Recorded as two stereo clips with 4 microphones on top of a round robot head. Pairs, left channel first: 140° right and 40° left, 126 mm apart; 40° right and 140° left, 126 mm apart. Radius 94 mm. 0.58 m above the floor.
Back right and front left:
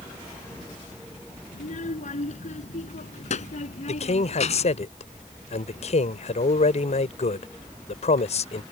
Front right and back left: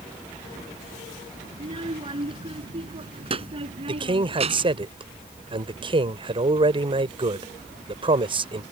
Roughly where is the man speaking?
Behind.